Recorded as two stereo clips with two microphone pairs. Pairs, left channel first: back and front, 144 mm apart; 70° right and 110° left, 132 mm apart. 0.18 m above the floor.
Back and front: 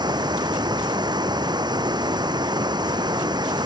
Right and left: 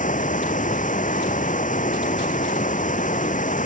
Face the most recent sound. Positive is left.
turn(degrees=-60)